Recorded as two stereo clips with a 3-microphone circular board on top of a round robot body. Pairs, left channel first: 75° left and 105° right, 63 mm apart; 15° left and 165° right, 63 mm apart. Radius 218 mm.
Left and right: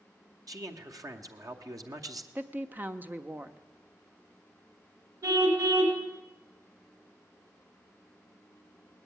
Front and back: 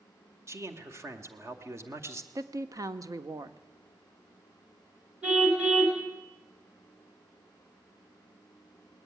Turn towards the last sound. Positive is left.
turn(degrees=-90)